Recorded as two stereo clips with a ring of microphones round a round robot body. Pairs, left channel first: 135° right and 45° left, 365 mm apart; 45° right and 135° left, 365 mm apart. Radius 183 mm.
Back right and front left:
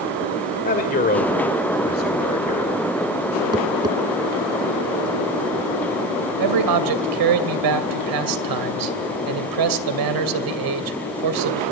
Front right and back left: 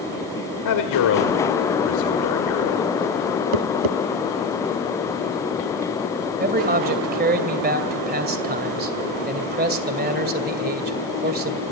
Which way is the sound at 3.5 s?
125° left.